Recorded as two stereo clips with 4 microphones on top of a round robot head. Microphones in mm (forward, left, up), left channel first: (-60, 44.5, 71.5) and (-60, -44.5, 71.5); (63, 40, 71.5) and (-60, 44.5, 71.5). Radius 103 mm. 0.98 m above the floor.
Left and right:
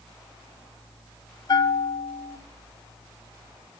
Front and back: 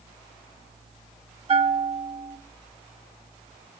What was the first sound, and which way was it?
A bell, 135° left.